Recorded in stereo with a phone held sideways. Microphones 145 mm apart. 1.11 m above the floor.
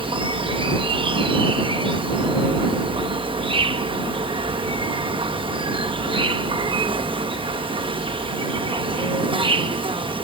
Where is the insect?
35° right (ahead or behind).